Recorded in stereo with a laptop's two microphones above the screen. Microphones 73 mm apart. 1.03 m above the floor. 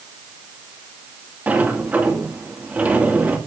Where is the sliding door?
25° right (ahead or behind), 2.5 m.